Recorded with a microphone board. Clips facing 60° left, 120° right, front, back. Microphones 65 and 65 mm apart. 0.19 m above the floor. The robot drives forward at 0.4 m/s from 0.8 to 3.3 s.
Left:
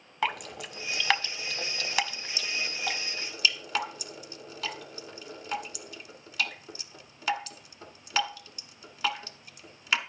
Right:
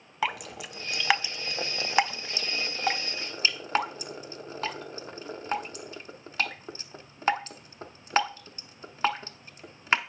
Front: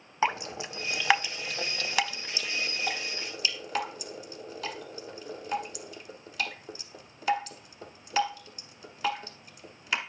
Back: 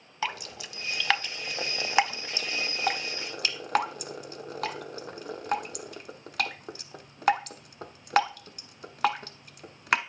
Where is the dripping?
35° right, 0.5 m; by 10.0 s 170° right, 0.9 m.